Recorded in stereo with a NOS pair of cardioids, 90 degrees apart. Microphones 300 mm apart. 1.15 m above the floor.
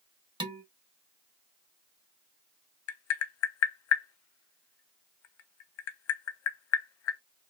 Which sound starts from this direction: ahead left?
Tapping, at 2.9 s.